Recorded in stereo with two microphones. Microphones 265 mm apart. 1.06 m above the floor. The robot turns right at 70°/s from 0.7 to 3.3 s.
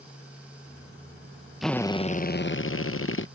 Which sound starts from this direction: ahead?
A drill, at 1.6 s.